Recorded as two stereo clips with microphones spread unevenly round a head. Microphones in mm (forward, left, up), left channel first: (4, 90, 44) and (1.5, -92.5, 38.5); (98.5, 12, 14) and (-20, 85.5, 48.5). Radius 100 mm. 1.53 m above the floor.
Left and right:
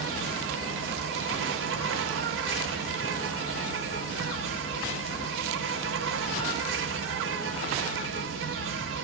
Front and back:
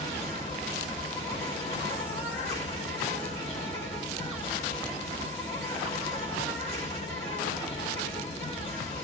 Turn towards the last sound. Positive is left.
turn(degrees=-110)